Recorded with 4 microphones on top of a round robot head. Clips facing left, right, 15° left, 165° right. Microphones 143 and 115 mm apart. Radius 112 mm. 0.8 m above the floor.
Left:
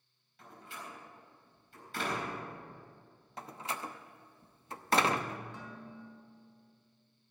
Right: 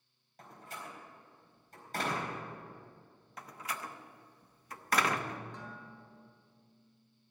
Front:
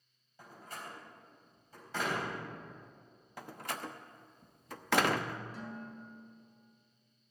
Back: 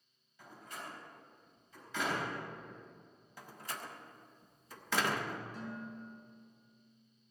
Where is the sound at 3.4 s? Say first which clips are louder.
Left 2 dB, front 5 dB; 30° left, 1.0 m.